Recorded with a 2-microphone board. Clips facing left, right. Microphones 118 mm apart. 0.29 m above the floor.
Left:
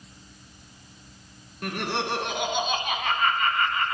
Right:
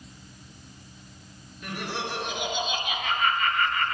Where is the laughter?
65° left (ahead or behind), 3 m; by 3.9 s 20° left (ahead or behind), 2 m.